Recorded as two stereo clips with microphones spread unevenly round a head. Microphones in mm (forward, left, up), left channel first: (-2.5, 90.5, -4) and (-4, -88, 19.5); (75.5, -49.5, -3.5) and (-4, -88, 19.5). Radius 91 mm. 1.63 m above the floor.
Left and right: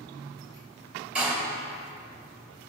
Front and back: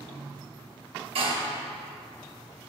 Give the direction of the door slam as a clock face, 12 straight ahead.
6 o'clock.